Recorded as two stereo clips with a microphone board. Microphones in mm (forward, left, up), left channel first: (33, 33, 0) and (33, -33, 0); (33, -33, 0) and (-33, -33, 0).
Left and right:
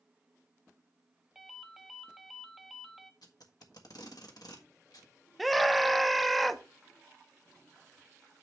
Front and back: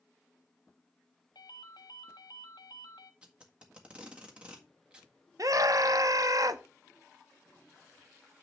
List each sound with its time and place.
1.4 s a ringtone: straight ahead, 0.8 m
3.2 s tape being pulled: 105° left, 1.6 m
5.4 s a scream: straight behind, 0.8 m